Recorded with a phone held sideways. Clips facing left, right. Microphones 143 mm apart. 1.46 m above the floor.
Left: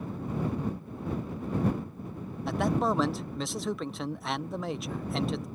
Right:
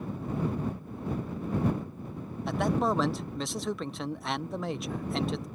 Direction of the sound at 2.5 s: Centre (ahead or behind).